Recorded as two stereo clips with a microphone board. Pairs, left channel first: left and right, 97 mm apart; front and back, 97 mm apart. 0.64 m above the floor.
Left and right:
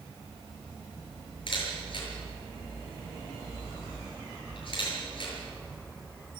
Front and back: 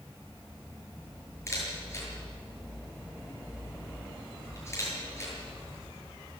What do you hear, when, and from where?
1.5 s a camera shutter: 60° left, 7.5 m